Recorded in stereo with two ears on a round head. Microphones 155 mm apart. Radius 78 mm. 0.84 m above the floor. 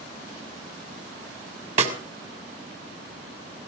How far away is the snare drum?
About 2.5 m.